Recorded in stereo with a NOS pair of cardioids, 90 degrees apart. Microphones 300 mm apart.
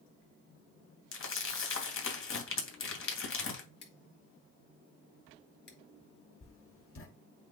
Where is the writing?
50° left, 4 m.